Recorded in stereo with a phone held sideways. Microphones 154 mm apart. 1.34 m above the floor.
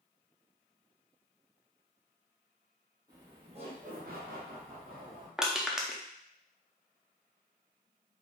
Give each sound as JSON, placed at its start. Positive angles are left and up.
{"t": 3.1, "sound": "laughter", "side_deg": -25, "distance_m": 1.3}
{"t": 5.4, "sound": "crushing", "side_deg": -5, "distance_m": 0.5}